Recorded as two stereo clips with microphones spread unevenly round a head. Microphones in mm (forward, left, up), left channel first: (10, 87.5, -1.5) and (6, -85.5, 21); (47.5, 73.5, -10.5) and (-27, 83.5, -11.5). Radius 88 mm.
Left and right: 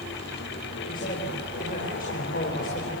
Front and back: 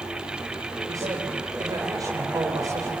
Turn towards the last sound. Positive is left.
turn(degrees=135)